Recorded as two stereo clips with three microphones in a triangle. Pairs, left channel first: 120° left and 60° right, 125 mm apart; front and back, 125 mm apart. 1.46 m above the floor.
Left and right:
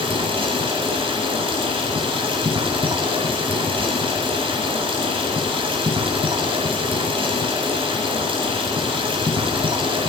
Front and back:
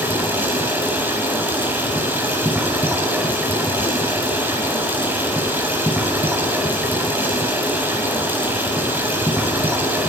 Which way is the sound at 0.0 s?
105° right.